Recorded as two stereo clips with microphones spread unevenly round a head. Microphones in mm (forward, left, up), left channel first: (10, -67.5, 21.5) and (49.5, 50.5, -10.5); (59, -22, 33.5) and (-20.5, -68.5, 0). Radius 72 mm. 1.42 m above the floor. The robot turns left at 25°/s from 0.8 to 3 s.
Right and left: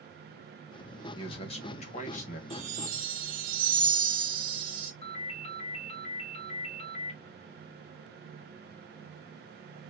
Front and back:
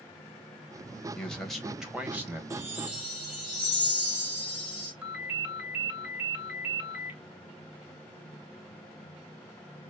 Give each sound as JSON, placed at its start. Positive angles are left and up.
{"t": 1.1, "sound": "a man speaking", "azimuth_deg": -50, "distance_m": 1.9}
{"t": 2.5, "sound": "a chime", "azimuth_deg": 130, "distance_m": 1.1}
{"t": 5.0, "sound": "a ringtone", "azimuth_deg": -70, "distance_m": 1.9}